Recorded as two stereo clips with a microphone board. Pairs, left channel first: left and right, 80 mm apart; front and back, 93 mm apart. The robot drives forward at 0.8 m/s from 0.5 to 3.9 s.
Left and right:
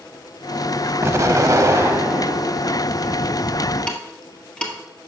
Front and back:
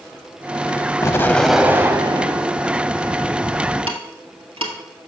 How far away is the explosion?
About 0.6 m.